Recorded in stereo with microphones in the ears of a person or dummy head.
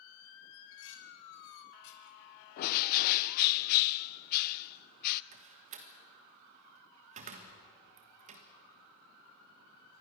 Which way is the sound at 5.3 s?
35° right (ahead or behind).